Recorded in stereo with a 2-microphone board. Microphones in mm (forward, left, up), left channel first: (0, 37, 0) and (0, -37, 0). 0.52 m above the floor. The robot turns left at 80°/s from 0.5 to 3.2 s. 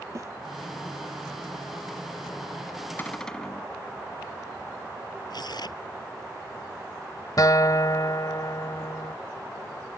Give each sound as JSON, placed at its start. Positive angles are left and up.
{"t": 0.1, "sound": "a snare drum", "side_deg": -45}
{"t": 3.0, "sound": "a cupboard door", "side_deg": 25}
{"t": 5.3, "sound": "tearing paper", "side_deg": 70}
{"t": 7.4, "sound": "a guitar", "side_deg": 60}